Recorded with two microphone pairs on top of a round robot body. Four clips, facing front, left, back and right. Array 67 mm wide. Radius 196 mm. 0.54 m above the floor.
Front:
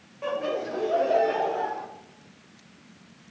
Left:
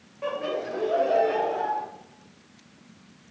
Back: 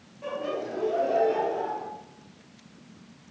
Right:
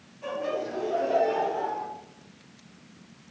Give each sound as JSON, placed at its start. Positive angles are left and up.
{"t": 0.2, "sound": "laughter", "azimuth_deg": 45, "distance_m": 3.5}